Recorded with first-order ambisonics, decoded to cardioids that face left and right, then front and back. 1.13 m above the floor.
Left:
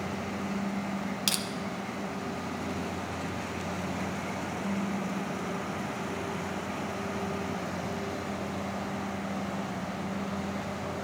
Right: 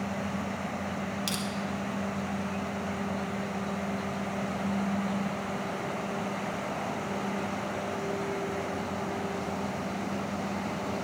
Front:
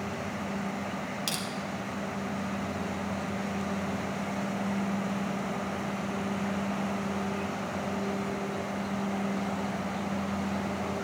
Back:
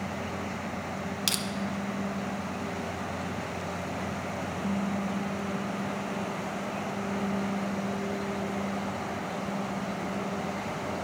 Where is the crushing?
130° left, 0.6 m.